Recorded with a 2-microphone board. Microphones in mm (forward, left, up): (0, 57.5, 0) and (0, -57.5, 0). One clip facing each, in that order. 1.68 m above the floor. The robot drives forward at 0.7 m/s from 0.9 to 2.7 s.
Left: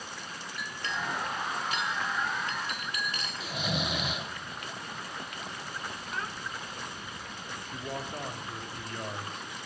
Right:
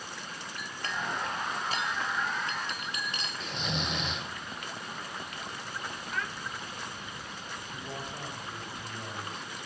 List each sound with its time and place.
0.6 s a clink: 45° right (ahead or behind), 1.8 m; by 3.3 s 25° right (ahead or behind), 2.5 m
3.4 s snoring: 10° left (ahead or behind), 1.1 m
6.1 s a child speaking: 30° left (ahead or behind), 1.5 m
7.7 s a man speaking: 60° left (ahead or behind), 3.5 m